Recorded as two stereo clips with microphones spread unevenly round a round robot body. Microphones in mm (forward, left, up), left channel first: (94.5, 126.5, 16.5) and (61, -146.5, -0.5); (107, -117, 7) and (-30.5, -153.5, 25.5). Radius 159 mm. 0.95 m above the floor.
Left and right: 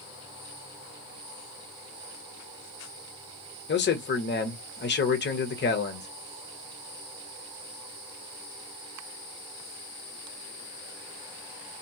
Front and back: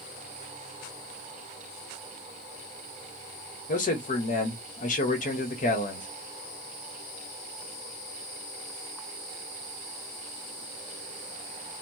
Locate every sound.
3.7 s a man speaking: 30° left, 1.1 m